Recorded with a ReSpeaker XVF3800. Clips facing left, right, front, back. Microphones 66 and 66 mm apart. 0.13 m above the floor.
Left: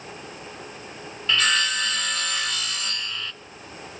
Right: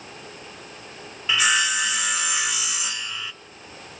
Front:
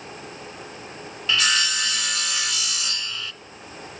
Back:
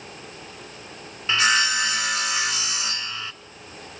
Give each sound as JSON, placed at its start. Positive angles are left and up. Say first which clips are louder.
{"t": 1.3, "sound": "sawing", "louder": "right 1 dB, back 3 dB", "azimuth_deg": -155, "distance_m": 1.2}